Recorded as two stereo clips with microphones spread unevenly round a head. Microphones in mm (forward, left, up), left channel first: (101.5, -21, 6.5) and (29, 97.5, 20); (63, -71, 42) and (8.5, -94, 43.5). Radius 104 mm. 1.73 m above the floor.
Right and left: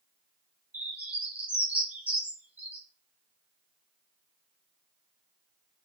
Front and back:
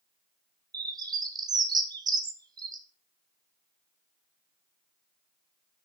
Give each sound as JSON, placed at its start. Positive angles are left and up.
{"t": 0.7, "sound": "a bird", "azimuth_deg": -155, "distance_m": 1.1}